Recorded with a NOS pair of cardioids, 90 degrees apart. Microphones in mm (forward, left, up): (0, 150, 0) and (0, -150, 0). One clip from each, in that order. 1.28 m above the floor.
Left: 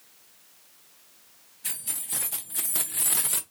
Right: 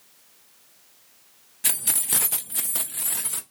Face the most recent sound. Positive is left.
turn(degrees=25)